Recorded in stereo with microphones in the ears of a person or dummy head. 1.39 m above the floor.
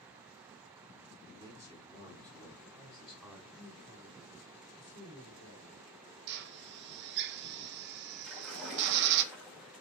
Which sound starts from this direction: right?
A drill, at 6.3 s.